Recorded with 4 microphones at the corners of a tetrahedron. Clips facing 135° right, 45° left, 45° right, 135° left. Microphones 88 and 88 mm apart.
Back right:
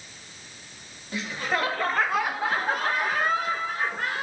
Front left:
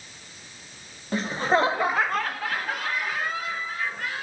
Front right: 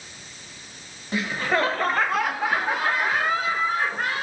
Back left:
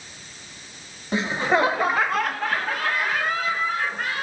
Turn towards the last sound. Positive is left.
turn(degrees=-100)